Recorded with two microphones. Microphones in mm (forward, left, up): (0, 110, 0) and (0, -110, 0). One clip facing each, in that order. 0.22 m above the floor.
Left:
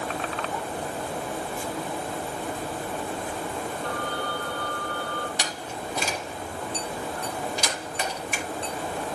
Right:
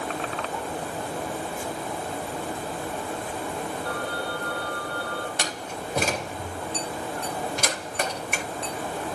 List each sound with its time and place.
3.8 s a phone ringing: 5° right (ahead or behind), 4.5 m
5.4 s a door slam: 55° right (ahead or behind), 3.5 m